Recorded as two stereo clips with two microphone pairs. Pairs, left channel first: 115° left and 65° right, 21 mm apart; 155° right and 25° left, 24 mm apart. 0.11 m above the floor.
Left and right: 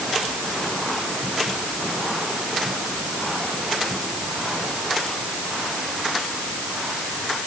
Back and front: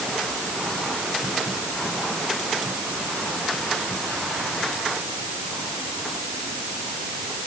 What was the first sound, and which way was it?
Only background noise.